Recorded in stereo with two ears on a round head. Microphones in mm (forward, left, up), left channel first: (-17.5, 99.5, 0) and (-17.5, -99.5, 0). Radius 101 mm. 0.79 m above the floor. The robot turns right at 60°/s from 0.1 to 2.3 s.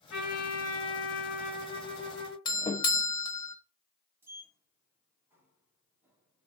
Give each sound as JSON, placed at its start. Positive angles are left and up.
{"t": 0.1, "sound": "a trumpet", "azimuth_deg": 65, "distance_m": 4.5}
{"t": 2.5, "sound": "a doorbell", "side_deg": 20, "distance_m": 0.9}
{"t": 4.2, "sound": "a sliding door", "side_deg": -10, "distance_m": 2.0}